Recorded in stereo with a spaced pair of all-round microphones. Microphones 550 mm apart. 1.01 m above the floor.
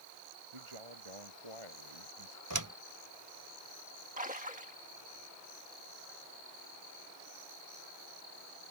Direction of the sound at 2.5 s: 35° right (ahead or behind).